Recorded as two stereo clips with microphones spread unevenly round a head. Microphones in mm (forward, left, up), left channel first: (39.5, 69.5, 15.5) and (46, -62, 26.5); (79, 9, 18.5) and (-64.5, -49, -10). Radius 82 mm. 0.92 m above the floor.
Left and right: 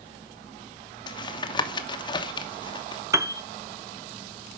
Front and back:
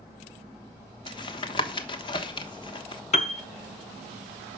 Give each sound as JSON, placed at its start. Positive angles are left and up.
{"t": 1.1, "sound": "tapping", "azimuth_deg": 80, "distance_m": 1.1}
{"t": 3.1, "sound": "a piano", "azimuth_deg": -20, "distance_m": 0.9}